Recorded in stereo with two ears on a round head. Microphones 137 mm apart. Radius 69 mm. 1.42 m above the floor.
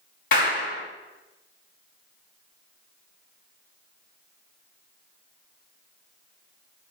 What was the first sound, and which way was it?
A clap, 55° left (ahead or behind).